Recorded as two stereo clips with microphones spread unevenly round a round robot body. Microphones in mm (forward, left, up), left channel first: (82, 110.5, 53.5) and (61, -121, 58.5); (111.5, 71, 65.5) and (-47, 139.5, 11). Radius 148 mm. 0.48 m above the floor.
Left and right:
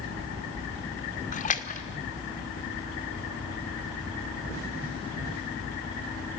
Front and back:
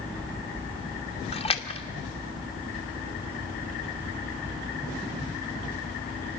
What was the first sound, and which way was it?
A splash, 40° left.